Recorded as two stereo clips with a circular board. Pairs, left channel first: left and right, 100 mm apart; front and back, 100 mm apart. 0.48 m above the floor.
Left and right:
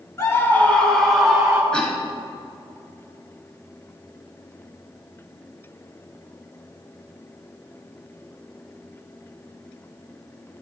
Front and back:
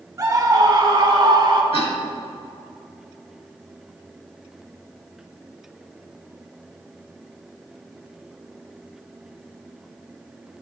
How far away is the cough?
About 2.5 m.